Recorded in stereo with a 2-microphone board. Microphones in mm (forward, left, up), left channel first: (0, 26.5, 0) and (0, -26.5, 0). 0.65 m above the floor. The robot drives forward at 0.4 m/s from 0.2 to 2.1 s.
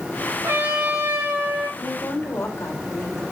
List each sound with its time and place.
0.4 s a trumpet: 75° right (ahead or behind), 3 m; by 1.7 s 80° right, 3 m
1.8 s a woman speaking: 60° left (ahead or behind), 2.5 m; by 3.2 s 55° left (ahead or behind), 2.5 m